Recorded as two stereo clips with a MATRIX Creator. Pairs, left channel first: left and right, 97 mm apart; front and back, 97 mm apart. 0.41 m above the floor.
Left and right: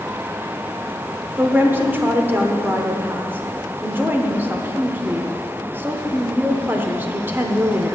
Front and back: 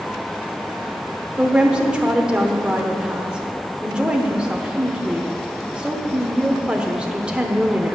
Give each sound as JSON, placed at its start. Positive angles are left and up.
{"t": 1.4, "sound": "a woman speaking", "azimuth_deg": -115, "distance_m": 0.9}